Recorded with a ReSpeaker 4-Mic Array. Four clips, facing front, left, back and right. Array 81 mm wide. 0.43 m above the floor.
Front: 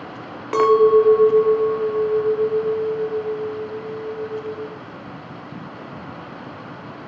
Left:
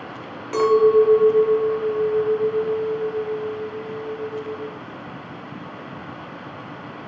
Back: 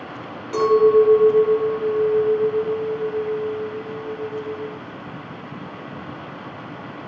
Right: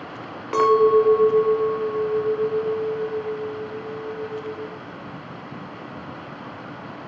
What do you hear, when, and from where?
0.5 s a clink: 20° right, 0.7 m